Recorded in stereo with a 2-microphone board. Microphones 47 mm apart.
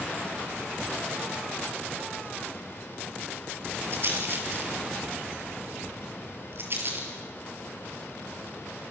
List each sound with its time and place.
3.9 s a rattle: 50° right (ahead or behind), 4.5 m